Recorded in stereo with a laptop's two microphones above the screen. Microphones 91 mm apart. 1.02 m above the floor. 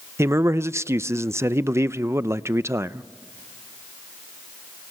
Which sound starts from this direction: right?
A man speaking, at 0.2 s.